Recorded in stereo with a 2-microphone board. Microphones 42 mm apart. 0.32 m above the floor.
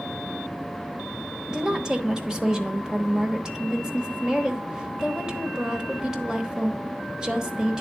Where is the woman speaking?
15° right (ahead or behind), 0.9 m.